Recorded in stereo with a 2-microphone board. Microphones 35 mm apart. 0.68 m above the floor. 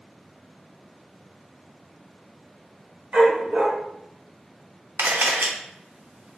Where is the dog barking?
45° right (ahead or behind), 1.4 m.